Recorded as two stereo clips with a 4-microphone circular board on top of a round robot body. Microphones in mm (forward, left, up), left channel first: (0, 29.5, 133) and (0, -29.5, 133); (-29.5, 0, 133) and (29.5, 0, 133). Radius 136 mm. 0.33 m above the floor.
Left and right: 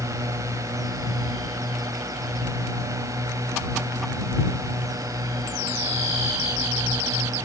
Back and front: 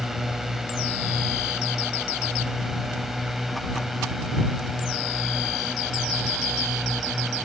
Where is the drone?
85° right.